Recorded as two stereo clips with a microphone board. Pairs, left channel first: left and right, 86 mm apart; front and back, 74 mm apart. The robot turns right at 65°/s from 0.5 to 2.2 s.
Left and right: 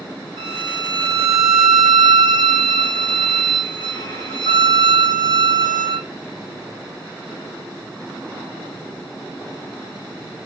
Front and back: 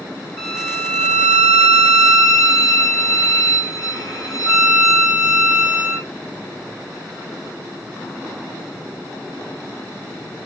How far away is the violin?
About 3 m.